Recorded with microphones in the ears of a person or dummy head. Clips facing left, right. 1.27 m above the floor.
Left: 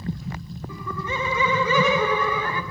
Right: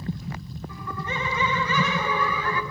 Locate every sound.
0.7 s laughter: 85° left, 2 m; by 2.6 s 40° left (ahead or behind), 1.4 m